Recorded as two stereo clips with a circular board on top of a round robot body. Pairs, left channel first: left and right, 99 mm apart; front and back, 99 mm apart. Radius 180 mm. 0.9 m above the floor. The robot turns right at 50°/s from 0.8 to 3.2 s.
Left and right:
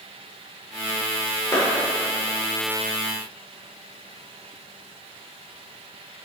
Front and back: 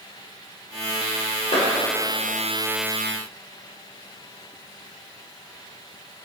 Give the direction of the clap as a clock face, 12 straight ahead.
11 o'clock.